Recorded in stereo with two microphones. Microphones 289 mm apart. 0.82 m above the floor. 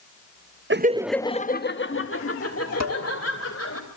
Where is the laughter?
40° right (ahead or behind), 0.6 m; by 3.8 s 55° left (ahead or behind), 3.5 m.